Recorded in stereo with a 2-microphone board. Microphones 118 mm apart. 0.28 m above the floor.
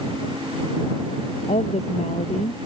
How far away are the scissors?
No scissors in this recording.